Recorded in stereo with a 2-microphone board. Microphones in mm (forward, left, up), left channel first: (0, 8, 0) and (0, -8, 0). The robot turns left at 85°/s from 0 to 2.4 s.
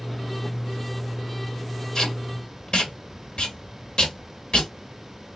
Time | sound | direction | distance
1.9 | tape being pulled | 40° left (ahead or behind) | 1.5 m